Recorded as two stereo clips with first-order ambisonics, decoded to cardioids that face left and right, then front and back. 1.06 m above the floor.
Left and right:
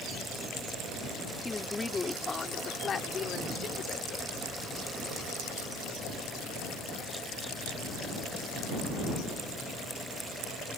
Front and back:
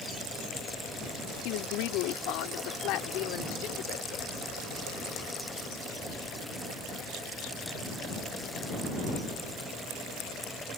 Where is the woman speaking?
10° left; by 4.5 s 35° left.